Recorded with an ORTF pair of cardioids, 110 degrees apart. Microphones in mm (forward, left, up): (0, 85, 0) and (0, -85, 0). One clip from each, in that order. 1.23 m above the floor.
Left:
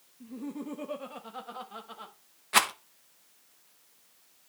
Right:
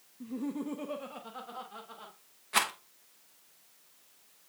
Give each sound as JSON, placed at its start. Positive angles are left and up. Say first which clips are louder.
{"t": 0.2, "sound": "laughter", "louder": "right 3 dB", "azimuth_deg": -25, "distance_m": 0.9}
{"t": 2.5, "sound": "a rattle", "louder": "left 4 dB", "azimuth_deg": 30, "distance_m": 1.2}